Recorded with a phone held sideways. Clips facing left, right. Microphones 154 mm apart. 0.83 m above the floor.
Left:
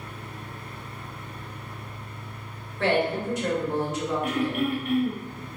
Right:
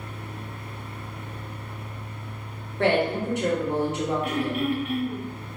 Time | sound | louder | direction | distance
0.0 | a fan | right 2 dB | 55° right (ahead or behind) | 0.9 m
2.8 | a woman speaking | right 2 dB | 60° right (ahead or behind) | 1.0 m
4.2 | throat clearing | even | 50° left (ahead or behind) | 0.5 m